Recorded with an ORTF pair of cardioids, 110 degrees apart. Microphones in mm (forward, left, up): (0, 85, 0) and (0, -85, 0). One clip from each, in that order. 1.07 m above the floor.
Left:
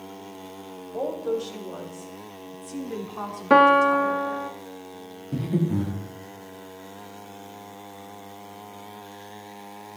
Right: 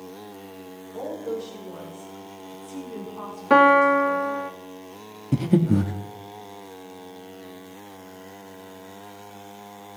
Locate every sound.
0.9 s a woman speaking: 45° left, 5.5 m; by 4.5 s 60° left, 2.5 m
3.5 s a piano: straight ahead, 0.6 m
5.3 s breathing: 50° right, 1.2 m